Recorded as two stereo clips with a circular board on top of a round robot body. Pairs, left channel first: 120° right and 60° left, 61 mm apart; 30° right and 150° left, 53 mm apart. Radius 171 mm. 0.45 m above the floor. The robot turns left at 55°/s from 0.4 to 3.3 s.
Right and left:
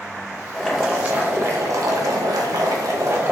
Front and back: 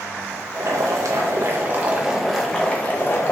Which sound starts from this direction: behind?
Boiling, at 0.5 s.